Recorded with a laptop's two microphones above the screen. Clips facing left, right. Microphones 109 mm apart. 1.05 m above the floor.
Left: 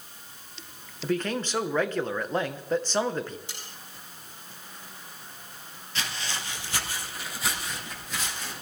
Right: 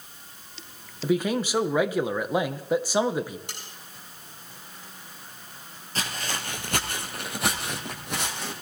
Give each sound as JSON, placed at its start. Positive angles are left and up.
{"t": 1.0, "sound": "a man speaking", "side_deg": -10, "distance_m": 0.6}
{"t": 3.5, "sound": "cutlery clinking", "side_deg": -65, "distance_m": 5.5}
{"t": 6.0, "sound": "footsteps", "side_deg": -40, "distance_m": 1.5}